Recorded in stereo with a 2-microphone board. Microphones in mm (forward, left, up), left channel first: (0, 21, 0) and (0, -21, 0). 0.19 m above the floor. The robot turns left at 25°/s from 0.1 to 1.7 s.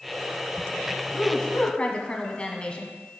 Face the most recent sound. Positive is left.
turn(degrees=25)  # may be behind; listen again after turning